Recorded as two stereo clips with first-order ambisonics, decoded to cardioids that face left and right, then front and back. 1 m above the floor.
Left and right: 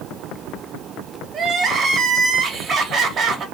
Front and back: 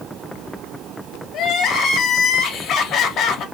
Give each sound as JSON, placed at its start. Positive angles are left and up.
{"t": 1.3, "sound": "crying", "azimuth_deg": -45, "distance_m": 0.6}